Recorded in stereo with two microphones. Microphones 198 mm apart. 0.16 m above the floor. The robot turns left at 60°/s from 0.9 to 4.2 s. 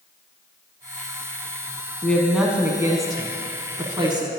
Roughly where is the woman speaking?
Centre.